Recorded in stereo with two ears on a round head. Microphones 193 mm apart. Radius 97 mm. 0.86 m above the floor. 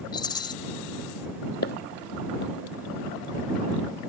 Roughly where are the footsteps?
Left.